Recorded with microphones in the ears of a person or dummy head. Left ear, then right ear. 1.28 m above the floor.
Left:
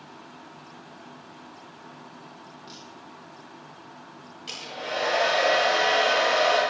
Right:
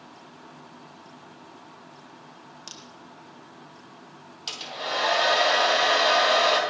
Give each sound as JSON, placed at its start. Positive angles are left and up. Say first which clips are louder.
{"t": 2.7, "sound": "a crack", "louder": "right 4 dB", "side_deg": -60, "distance_m": 1.3}
{"t": 4.5, "sound": "a hair dryer", "louder": "right 2 dB", "side_deg": -50, "distance_m": 3.0}